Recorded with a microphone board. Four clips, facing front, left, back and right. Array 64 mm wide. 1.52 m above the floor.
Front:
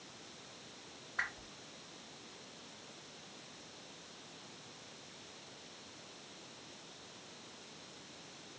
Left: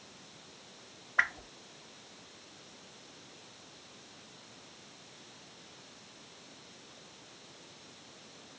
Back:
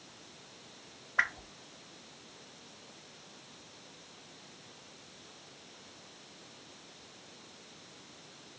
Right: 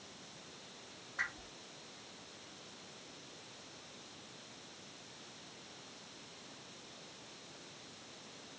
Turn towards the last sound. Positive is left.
turn(degrees=125)